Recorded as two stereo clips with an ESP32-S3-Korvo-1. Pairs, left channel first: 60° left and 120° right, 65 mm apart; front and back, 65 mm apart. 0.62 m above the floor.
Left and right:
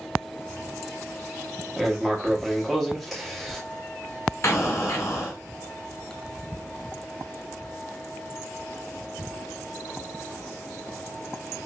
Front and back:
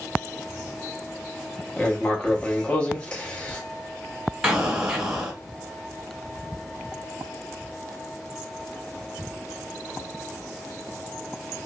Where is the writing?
30° right, 0.8 m.